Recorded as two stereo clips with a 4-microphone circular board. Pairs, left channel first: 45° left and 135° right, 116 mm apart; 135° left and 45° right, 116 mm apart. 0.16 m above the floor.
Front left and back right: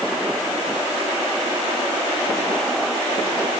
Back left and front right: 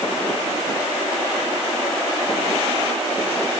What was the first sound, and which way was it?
Only background noise.